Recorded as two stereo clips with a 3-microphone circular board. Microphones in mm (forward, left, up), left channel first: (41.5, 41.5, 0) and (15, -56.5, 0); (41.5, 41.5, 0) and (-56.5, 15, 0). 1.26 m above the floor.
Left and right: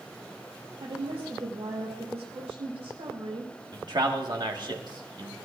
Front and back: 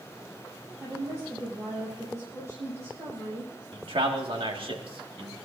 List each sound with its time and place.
0.8 s a woman speaking: 110° right, 8.5 m
3.7 s a man speaking: 145° right, 2 m